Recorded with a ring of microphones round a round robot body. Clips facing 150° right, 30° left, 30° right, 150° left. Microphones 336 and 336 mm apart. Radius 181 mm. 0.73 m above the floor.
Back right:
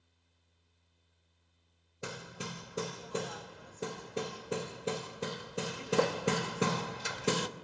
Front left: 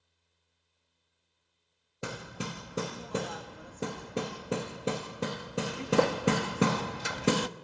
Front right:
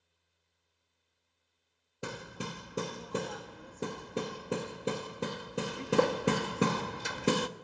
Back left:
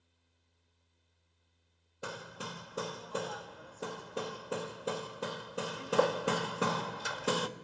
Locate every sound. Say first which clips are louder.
2.0 s hammering: front left 4 dB, front right 3 dB; 25° left, 1.2 m